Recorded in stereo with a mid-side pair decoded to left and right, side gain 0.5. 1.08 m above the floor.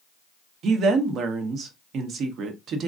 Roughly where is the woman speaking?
Ahead right.